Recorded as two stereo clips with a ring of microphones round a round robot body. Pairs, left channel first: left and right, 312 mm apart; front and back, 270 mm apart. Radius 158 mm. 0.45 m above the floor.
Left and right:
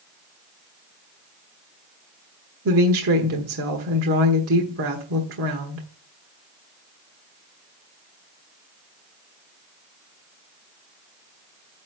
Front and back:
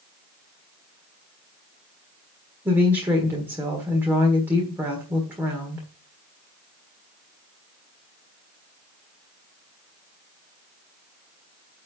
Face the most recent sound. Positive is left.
turn(degrees=-100)